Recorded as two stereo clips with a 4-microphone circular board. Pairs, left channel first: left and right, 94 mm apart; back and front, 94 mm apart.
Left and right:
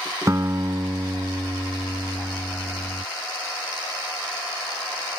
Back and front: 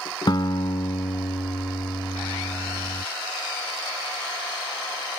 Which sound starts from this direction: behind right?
A guitar, at 0.3 s.